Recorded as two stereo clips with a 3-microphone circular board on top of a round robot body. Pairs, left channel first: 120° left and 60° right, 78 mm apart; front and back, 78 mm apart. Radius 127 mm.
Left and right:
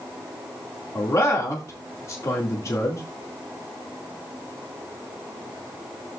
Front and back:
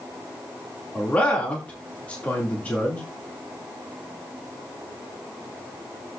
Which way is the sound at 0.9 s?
70° left.